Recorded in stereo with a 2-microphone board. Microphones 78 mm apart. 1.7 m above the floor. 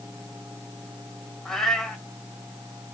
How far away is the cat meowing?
About 1.3 m.